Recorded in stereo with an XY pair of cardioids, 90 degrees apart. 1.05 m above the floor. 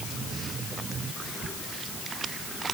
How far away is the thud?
I don't hear a thud.